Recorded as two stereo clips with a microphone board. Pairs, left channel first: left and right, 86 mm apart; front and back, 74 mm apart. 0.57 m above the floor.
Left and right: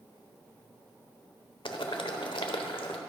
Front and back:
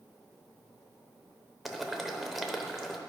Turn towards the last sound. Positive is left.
turn(degrees=90)